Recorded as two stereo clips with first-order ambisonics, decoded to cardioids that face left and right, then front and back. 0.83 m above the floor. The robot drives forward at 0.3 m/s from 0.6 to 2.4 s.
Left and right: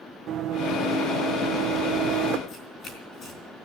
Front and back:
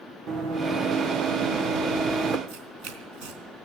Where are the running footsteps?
140° right, 2.5 m; by 2.4 s 110° right, 1.9 m.